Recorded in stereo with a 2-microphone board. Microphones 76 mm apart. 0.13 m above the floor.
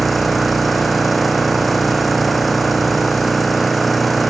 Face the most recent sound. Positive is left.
turn(degrees=0)  # may be behind; listen again after turning